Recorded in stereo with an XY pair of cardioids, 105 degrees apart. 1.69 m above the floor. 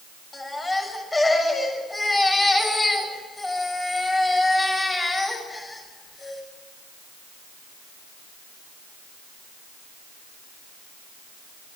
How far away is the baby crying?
About 6.5 m.